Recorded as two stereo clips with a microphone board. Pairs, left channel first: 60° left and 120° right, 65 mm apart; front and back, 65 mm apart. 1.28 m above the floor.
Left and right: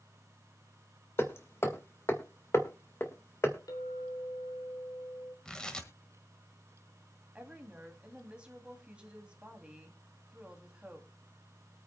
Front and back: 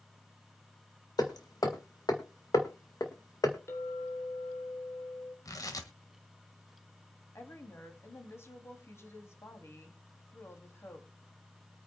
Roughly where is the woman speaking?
Ahead right.